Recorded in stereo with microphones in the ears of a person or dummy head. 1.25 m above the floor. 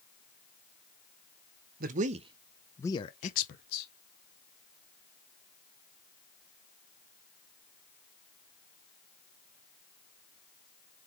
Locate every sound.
1.8 s a man speaking: 55° right (ahead or behind), 0.8 m; by 3.9 s 55° left (ahead or behind), 1.0 m